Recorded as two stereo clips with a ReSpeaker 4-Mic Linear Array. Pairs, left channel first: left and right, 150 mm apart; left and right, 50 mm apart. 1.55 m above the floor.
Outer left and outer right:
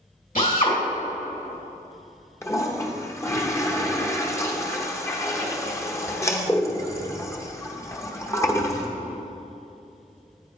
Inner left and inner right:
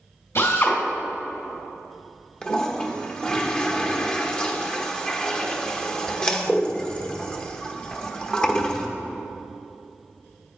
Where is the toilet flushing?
20° left (ahead or behind), 0.9 m.